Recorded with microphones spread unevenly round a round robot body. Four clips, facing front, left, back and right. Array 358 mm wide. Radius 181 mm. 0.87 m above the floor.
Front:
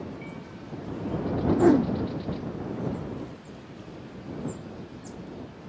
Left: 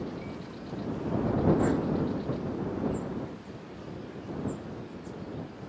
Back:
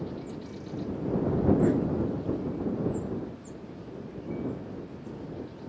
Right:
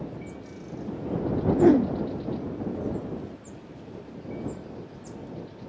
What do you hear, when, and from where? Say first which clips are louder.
1.6 s a whoosh: right 8 dB, front 5 dB; 45° right